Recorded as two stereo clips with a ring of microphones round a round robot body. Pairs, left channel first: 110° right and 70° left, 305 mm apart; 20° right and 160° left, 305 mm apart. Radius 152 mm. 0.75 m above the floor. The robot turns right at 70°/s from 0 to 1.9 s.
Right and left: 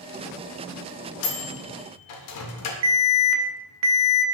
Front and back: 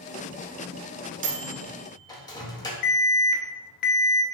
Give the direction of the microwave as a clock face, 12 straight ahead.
5 o'clock.